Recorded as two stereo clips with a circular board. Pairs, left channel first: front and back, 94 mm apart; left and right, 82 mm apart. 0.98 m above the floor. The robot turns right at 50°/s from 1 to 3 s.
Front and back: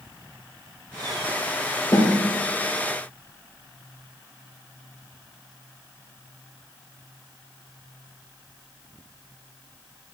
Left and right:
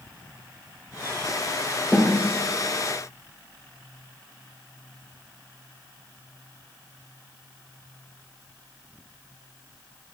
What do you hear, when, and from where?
1.9 s a snare drum: 15° right, 3 m; by 2.1 s 5° right, 3 m